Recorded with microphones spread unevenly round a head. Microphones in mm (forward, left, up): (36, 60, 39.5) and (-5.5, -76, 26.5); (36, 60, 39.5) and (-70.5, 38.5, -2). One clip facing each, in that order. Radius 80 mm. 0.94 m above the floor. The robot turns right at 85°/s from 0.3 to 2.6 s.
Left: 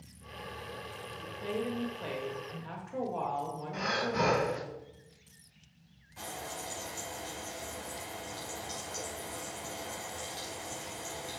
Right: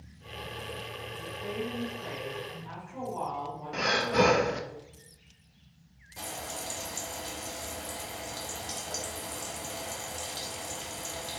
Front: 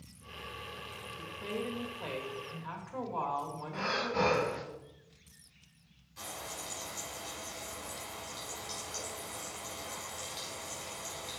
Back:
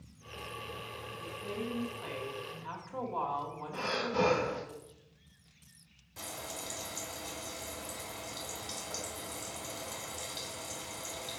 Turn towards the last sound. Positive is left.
turn(degrees=-155)